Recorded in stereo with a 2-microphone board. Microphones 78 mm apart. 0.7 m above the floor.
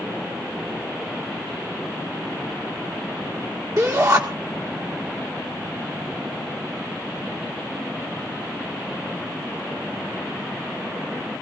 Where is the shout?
50° right (ahead or behind), 1.9 m.